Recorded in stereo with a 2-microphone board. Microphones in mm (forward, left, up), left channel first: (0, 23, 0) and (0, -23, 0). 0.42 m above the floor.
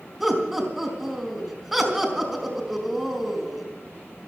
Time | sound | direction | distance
0.2 | laughter | 5° right (ahead or behind) | 4 m